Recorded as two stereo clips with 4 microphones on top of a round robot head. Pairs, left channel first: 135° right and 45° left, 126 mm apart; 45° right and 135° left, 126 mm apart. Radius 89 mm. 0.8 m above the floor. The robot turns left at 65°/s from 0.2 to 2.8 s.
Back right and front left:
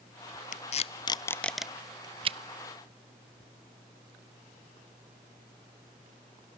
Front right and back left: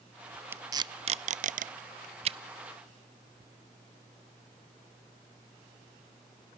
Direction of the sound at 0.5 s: 155° right.